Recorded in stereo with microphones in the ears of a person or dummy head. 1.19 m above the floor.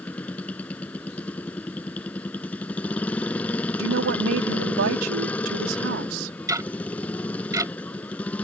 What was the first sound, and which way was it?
A motorcycle, 10° left (ahead or behind).